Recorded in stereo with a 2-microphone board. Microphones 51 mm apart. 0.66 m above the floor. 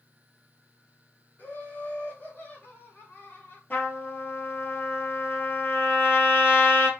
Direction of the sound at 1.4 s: 40° left (ahead or behind).